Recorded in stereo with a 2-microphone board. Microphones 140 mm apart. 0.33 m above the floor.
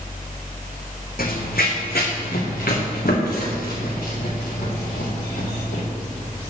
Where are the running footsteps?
80° left, 1.2 m.